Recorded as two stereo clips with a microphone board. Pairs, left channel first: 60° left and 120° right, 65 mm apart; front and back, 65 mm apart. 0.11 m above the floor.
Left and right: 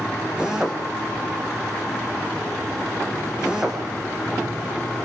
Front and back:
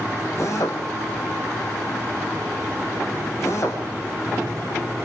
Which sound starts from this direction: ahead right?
A drill, at 0.4 s.